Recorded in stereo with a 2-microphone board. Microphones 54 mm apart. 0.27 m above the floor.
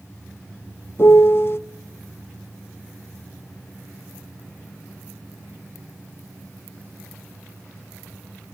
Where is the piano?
50° left (ahead or behind), 0.5 m.